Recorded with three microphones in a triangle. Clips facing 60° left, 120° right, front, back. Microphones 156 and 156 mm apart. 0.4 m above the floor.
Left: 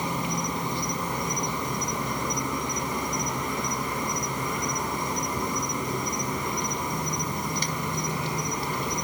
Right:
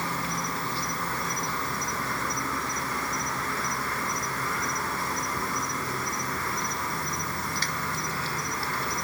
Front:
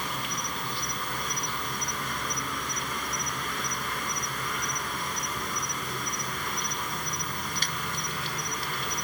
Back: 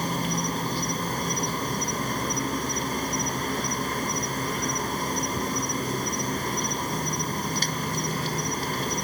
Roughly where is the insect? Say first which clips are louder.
Left 3 dB, back 8 dB; behind left.